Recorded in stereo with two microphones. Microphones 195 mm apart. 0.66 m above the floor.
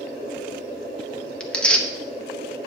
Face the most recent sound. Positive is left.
turn(degrees=5)  # may be behind; listen again after turning